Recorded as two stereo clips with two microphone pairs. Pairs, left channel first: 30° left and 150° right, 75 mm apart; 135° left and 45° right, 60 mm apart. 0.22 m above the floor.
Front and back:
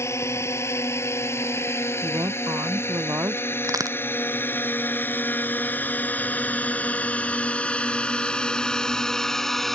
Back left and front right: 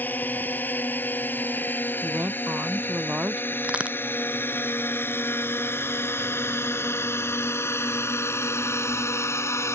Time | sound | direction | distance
0.0 | a drone | 80° left | ?
2.0 | a woman speaking | 105° right | ?
3.6 | a crack | 115° right | ?